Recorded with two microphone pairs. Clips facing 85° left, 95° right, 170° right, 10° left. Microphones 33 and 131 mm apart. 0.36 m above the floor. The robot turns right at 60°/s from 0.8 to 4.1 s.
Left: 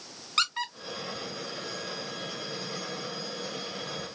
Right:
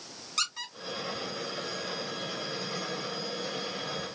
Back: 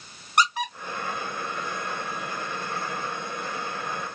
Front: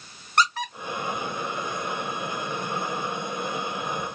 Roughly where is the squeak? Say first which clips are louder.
Left 5 dB, even; behind left.